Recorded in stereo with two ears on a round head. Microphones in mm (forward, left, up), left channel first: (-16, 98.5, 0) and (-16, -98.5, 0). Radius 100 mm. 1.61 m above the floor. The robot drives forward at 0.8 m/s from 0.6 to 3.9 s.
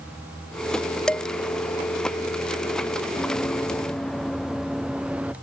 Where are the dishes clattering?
5° left (ahead or behind).